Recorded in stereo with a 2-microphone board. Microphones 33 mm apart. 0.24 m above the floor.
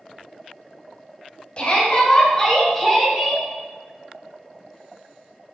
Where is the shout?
35° left (ahead or behind), 1.2 m; by 3.5 s 10° right (ahead or behind), 1.2 m.